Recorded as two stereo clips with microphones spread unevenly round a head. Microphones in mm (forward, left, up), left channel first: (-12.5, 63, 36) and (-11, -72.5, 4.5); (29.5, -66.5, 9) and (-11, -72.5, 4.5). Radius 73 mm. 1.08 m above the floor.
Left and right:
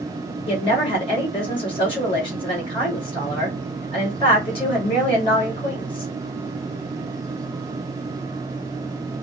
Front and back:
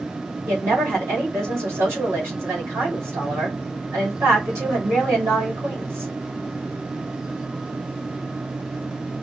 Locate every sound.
0.5 s a woman speaking: 145° left, 2.5 m